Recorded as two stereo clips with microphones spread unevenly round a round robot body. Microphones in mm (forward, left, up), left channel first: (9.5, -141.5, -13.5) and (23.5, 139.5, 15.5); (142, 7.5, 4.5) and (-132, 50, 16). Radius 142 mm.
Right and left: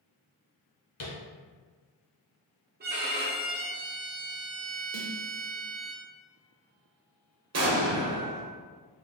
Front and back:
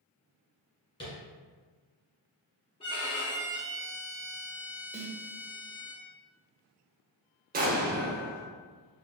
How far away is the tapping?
About 1.9 m.